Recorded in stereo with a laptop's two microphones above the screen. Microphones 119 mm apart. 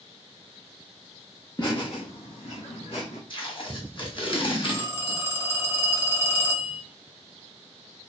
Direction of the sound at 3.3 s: 45° left (ahead or behind).